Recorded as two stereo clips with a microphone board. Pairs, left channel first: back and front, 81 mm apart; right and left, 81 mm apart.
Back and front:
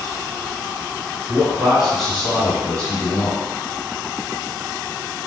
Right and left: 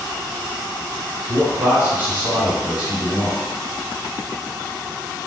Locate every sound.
1.3 s a man speaking: 75° left, 1.8 m; by 3.5 s 170° left, 1.8 m